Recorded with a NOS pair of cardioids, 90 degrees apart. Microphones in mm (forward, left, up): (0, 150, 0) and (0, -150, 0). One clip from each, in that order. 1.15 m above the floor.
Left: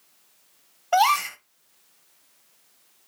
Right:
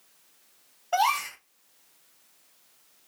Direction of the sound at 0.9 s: 25° left.